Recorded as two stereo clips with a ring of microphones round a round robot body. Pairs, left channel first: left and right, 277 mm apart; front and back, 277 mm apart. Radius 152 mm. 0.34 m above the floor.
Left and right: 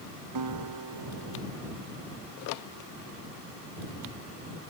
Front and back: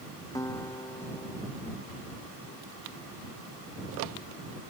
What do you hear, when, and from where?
0.3 s a guitar: 80° right